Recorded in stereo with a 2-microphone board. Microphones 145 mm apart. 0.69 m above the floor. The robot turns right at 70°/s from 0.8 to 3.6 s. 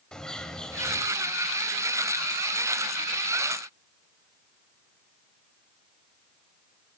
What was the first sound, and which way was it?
A bird, 5° left (ahead or behind).